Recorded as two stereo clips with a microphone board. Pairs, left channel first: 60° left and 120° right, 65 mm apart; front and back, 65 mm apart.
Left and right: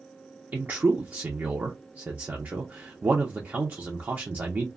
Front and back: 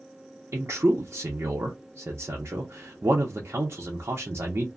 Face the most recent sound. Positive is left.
turn(degrees=-165)